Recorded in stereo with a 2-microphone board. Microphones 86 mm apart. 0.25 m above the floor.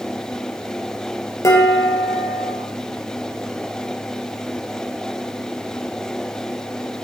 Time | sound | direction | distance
1.4 | dishes clattering | 35° left (ahead or behind) | 4 m